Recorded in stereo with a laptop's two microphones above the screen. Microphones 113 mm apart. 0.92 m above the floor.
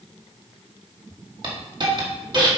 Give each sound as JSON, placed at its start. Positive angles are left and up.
{"t": 1.4, "sound": "a hiss", "side_deg": -40, "distance_m": 1.7}